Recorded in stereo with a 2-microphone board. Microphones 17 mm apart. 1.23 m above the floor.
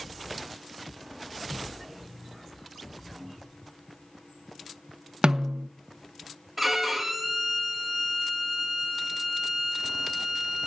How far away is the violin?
About 1.4 m.